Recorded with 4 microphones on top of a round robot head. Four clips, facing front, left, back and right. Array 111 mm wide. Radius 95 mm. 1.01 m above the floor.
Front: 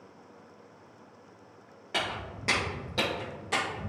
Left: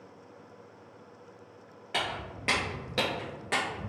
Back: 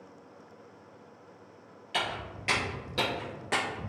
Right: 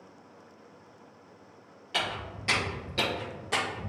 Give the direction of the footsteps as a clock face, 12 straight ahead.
11 o'clock.